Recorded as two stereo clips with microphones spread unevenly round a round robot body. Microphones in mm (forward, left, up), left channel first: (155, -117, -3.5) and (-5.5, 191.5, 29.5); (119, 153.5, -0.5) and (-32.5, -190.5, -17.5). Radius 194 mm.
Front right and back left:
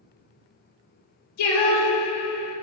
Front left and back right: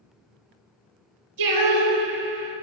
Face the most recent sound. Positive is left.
turn(degrees=-80)